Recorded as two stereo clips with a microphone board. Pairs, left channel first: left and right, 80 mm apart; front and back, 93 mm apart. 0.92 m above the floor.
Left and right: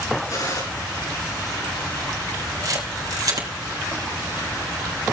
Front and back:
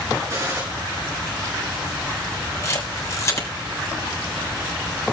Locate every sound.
0.3 s a gunshot: 125° left, 7 m
2.6 s a camera shutter: 55° right, 3.5 m